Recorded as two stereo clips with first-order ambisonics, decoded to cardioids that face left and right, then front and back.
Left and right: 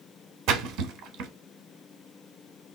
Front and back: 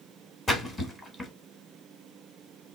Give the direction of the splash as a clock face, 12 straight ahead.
2 o'clock.